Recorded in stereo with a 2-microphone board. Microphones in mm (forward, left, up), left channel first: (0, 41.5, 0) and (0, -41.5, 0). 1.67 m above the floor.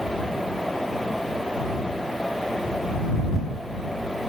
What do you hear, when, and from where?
Only background noise.